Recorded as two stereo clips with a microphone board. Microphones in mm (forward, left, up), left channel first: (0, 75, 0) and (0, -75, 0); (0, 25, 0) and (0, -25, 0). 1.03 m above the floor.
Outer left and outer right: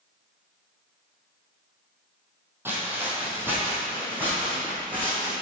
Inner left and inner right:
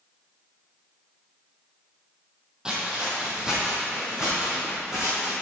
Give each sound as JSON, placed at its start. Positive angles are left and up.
{"t": 2.6, "sound": "footsteps", "side_deg": -15, "distance_m": 1.9}